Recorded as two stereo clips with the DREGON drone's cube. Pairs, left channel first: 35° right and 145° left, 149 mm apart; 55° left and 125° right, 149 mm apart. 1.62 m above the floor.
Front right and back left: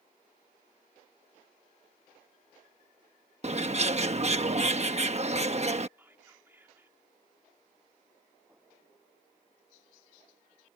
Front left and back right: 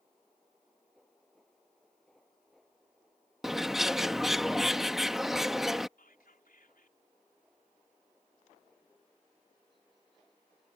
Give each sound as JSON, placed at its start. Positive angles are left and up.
{"t": 3.4, "sound": "a bird", "azimuth_deg": 150}
{"t": 6.0, "sound": "whispering", "azimuth_deg": 70}